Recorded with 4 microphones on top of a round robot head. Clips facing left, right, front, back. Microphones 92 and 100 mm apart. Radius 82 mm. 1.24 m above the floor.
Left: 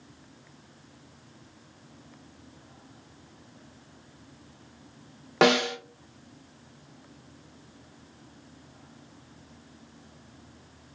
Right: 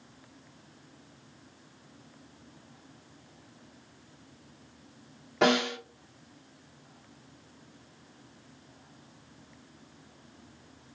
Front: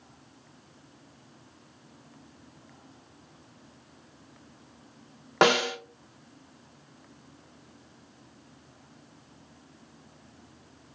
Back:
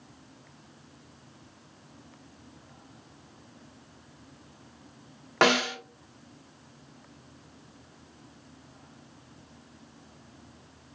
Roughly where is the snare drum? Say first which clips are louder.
Left 3 dB, front 1 dB; left.